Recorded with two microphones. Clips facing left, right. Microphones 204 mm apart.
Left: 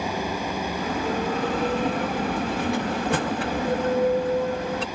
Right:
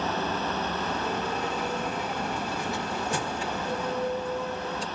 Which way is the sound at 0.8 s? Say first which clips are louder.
Left 4 dB; 60° left (ahead or behind).